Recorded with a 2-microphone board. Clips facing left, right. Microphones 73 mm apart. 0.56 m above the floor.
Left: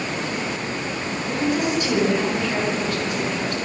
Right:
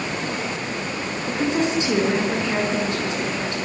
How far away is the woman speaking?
About 8 m.